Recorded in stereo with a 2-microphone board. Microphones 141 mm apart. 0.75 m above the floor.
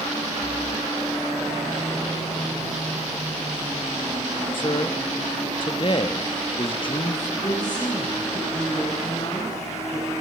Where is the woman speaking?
35° left (ahead or behind), 9 m.